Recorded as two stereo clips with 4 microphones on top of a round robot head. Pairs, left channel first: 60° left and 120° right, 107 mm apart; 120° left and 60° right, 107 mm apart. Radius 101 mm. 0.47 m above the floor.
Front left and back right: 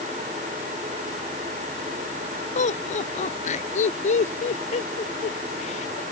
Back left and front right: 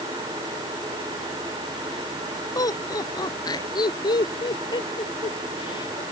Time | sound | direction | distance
2.5 | laughter | 65° left | ?